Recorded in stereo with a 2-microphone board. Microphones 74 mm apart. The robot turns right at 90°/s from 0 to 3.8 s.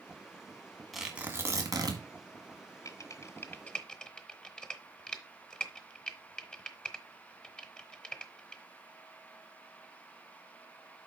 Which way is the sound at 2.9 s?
45° left (ahead or behind).